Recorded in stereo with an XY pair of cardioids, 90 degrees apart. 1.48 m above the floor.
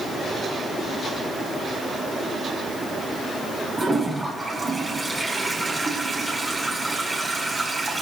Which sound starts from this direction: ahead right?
A toilet flushing, at 3.8 s.